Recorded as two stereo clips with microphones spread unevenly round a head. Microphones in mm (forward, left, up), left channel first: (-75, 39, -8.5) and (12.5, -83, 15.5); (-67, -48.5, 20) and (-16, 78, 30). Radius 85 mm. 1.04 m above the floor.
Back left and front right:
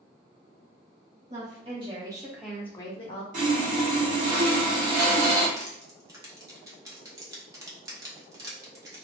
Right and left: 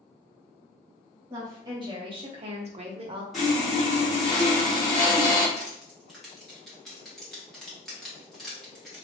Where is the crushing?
20° right, 0.5 m.